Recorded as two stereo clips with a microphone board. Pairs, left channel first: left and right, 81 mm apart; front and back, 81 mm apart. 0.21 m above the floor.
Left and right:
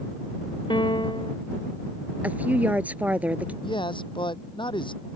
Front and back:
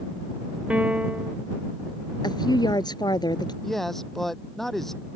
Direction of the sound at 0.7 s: 105° left.